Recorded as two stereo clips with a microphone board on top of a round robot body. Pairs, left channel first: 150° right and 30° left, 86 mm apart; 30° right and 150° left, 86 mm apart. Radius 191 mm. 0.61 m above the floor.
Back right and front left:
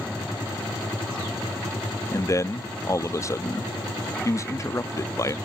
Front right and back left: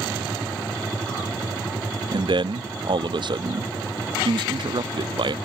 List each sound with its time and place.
2.1 s a man speaking: 160° left